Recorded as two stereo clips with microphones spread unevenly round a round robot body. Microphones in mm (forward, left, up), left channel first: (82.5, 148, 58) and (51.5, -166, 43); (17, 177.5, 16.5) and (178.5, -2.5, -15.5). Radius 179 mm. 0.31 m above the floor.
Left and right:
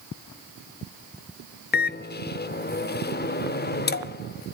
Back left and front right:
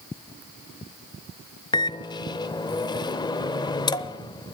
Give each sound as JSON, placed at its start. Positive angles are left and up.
{"t": 1.7, "sound": "a microwave", "azimuth_deg": 60, "distance_m": 0.8}